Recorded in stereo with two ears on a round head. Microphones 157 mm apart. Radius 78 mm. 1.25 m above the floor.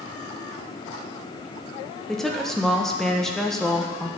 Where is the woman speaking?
5° left (ahead or behind), 1.1 m.